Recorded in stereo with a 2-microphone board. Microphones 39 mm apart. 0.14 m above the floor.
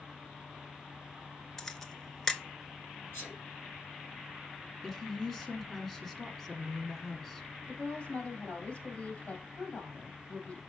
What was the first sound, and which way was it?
A camera shutter, 10° left (ahead or behind).